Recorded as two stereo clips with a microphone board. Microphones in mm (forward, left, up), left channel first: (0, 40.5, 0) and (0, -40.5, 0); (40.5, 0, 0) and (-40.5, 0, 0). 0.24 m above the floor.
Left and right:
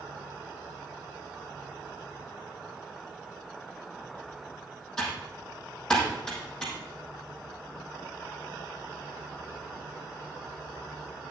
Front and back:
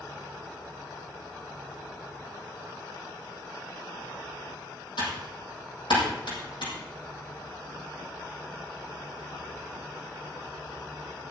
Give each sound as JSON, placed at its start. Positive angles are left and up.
{"t": 5.0, "sound": "typing on a keyboard", "azimuth_deg": 10, "distance_m": 5.0}